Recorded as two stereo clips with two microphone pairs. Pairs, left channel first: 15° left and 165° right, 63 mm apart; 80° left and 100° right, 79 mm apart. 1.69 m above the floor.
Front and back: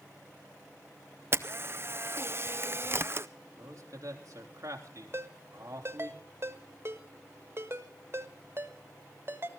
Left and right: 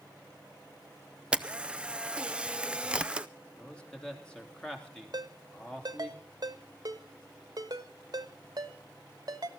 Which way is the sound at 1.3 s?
160° right.